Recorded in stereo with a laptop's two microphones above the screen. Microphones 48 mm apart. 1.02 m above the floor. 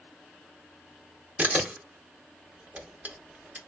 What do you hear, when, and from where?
1.4 s a camera shutter: 30° right (ahead or behind), 0.7 m